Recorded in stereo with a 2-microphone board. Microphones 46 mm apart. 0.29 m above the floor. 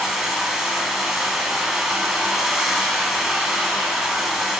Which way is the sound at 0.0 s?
5° right (ahead or behind).